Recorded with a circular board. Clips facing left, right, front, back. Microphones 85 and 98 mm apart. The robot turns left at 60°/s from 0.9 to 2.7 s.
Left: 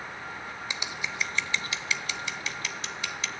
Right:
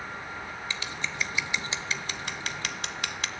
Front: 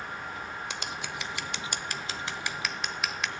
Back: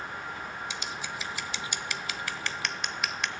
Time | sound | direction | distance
0.7 | scissors | 20° left | 0.8 m